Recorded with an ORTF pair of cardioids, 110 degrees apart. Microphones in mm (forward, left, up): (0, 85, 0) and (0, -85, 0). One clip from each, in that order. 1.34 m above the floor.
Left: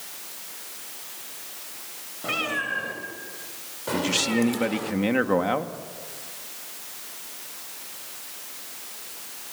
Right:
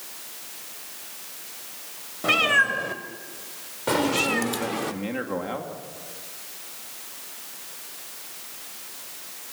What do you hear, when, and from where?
2.2 s a cat meowing: 40° right, 3 m; by 4.9 s 35° right, 1.6 m
3.9 s a man speaking: 40° left, 2 m